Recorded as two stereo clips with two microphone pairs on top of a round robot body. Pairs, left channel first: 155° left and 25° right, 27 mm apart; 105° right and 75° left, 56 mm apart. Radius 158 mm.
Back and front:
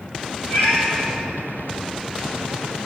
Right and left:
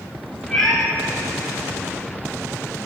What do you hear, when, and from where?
0.5 s a cat meowing: 170° left, 3.5 m